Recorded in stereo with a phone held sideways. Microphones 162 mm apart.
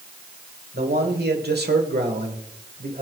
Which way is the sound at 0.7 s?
75° right (ahead or behind).